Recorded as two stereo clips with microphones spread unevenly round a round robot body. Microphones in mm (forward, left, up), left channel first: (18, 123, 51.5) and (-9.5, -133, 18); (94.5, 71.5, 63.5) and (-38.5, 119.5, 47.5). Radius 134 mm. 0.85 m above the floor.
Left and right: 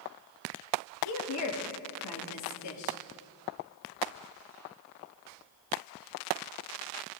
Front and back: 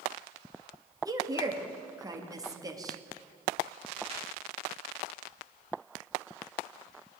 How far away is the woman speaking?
About 1.9 m.